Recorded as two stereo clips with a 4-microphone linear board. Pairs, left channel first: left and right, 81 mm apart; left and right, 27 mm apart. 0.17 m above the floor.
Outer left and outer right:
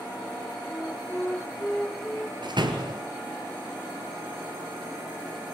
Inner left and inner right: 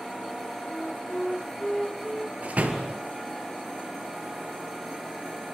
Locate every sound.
0.7 s a flute: 10° left (ahead or behind), 1.5 m
2.4 s a door slam: 65° right (ahead or behind), 3 m